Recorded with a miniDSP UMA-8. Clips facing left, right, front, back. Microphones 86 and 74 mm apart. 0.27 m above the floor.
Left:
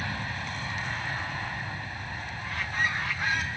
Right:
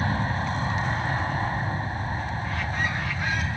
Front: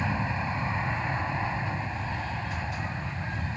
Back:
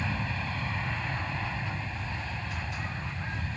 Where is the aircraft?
55° right.